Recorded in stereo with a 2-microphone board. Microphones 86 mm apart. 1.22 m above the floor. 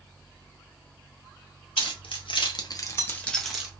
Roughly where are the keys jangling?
Left.